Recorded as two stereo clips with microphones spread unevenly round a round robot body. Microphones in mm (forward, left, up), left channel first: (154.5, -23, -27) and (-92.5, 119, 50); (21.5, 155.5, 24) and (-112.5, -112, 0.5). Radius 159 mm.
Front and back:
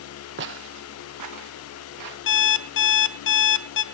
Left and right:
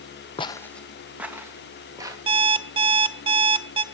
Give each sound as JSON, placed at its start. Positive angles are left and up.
{"t": 0.4, "sound": "footsteps", "azimuth_deg": 130, "distance_m": 0.7}
{"t": 2.3, "sound": "an alarm clock", "azimuth_deg": -50, "distance_m": 0.9}